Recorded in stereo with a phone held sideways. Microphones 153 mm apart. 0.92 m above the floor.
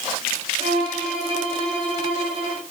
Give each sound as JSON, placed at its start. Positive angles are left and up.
{"t": 0.6, "sound": "a violin", "side_deg": -35, "distance_m": 4.5}